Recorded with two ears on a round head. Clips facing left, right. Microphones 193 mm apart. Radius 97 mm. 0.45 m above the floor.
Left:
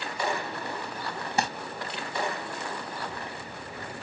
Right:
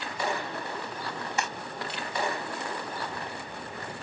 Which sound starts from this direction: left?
Crumpling, at 1.4 s.